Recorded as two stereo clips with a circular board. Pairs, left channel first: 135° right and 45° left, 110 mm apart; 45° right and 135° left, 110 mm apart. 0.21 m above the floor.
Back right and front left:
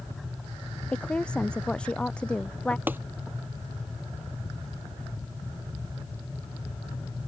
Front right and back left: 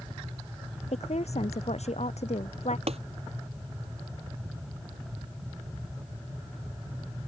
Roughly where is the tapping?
Behind left.